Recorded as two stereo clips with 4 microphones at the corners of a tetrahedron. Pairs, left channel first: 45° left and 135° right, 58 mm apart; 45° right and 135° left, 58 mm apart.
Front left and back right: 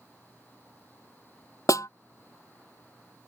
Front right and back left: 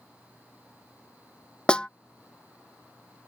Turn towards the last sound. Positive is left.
turn(degrees=30)